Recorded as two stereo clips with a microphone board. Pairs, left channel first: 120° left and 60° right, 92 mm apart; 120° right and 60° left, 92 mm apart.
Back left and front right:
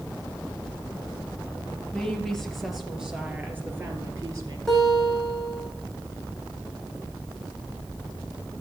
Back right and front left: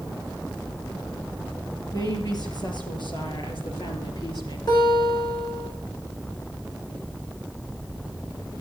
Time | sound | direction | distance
1.9 | a woman speaking | 160° right | 4 m
4.7 | a guitar | 155° right | 5 m